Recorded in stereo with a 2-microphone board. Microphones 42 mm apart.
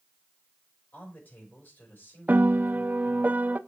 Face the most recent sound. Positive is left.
turn(degrees=-45)  # may be behind; listen again after turning